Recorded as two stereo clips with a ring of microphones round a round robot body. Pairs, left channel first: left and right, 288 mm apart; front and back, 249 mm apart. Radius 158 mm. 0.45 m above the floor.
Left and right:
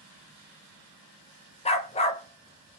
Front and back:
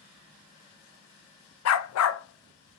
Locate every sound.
1.6 s a dog barking: 20° left, 0.7 m